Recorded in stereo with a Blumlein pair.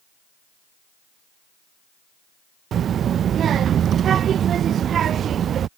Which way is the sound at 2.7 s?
25° right.